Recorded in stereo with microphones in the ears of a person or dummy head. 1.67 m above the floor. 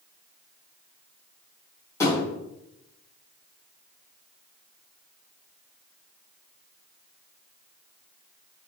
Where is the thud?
20° left (ahead or behind), 1.3 m.